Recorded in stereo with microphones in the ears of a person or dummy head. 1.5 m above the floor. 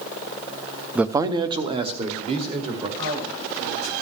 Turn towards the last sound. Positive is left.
turn(degrees=-85)